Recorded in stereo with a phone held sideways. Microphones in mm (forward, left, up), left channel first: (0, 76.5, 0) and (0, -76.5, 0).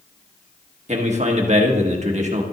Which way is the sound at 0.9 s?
50° right (ahead or behind).